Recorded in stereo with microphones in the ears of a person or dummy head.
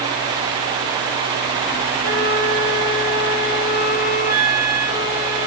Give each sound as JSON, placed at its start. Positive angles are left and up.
{"t": 2.0, "sound": "a flute", "side_deg": -10, "distance_m": 1.8}